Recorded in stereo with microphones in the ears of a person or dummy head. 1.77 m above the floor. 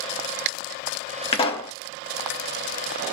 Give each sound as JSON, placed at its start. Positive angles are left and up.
{"t": 1.3, "sound": "a pop", "side_deg": 30, "distance_m": 0.8}